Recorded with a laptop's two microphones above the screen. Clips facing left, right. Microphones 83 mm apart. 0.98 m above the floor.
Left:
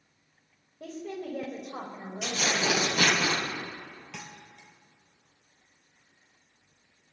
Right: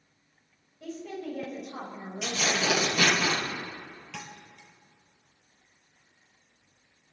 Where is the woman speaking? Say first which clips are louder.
Even; 50° left (ahead or behind), 4 m; by 2.7 s 30° left (ahead or behind), 5 m.